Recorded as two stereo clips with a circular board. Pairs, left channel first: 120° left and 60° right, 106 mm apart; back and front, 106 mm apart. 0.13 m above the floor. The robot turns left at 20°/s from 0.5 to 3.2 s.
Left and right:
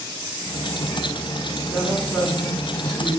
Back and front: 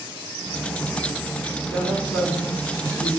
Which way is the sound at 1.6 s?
135° right.